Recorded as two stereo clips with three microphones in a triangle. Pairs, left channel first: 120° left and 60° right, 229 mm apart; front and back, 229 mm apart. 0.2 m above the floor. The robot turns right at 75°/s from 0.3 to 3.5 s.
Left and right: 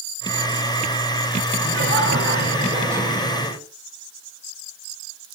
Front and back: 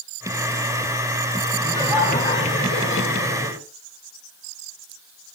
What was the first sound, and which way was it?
Laughter, 85° right.